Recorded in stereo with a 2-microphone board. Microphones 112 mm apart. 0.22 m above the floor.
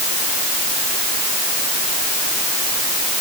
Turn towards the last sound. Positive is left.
No sound to turn to.